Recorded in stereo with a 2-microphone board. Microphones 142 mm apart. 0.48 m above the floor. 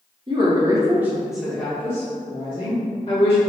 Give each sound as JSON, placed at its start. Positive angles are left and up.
{"t": 0.3, "sound": "a woman speaking", "side_deg": -35, "distance_m": 0.9}